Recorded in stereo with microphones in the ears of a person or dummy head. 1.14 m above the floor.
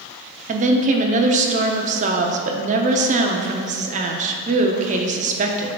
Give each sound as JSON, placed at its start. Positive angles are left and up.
{"t": 0.5, "sound": "a woman speaking", "side_deg": -40, "distance_m": 0.7}